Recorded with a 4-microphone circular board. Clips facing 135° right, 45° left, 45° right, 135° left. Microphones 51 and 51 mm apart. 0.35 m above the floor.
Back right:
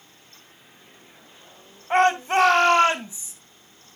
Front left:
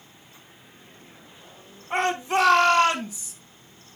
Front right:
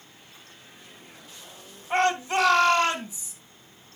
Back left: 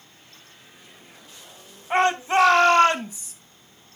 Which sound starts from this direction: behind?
A shout, at 1.9 s.